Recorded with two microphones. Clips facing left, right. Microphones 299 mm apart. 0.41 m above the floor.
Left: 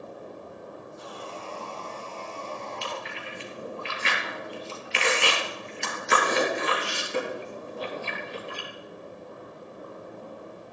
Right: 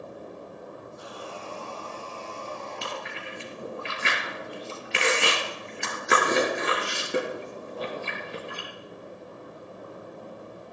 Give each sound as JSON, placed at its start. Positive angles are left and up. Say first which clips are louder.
{"t": 1.0, "sound": "sawing", "louder": "left 1 dB", "side_deg": -15, "distance_m": 5.0}
{"t": 2.8, "sound": "chewing", "louder": "even", "side_deg": -70, "distance_m": 4.0}